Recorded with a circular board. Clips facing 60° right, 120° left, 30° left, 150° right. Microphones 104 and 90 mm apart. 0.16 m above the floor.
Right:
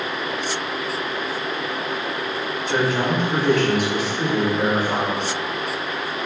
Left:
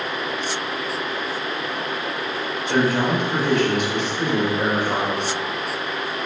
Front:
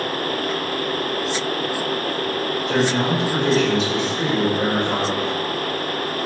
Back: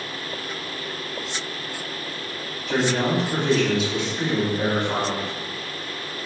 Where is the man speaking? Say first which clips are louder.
Left 2 dB, front 1 dB; 55° left, 1.6 m; by 5.3 s 5° left, 2.5 m.